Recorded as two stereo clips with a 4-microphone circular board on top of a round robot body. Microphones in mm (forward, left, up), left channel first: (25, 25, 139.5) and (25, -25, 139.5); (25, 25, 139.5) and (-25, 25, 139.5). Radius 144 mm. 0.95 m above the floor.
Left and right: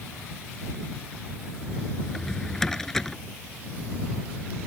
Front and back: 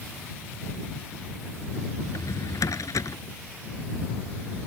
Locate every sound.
2.0 s a drawer: 10° left